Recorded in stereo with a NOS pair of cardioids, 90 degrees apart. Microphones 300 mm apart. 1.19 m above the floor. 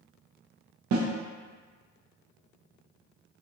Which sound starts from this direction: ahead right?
A snare drum, at 0.9 s.